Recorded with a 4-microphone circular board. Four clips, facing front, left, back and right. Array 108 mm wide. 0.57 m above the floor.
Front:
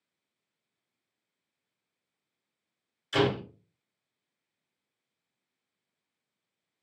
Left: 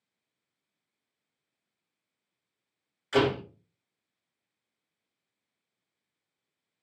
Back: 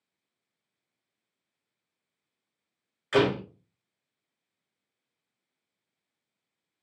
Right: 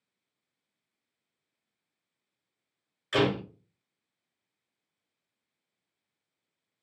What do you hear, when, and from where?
3.1 s a door slam: 175° right, 1.7 m